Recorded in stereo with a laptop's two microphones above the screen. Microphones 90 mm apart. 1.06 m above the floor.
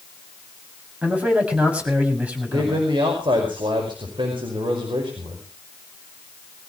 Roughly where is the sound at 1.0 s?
Centre.